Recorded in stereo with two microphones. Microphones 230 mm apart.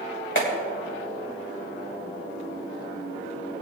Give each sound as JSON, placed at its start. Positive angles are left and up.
{"t": 0.3, "sound": "a clap", "side_deg": 55, "distance_m": 2.0}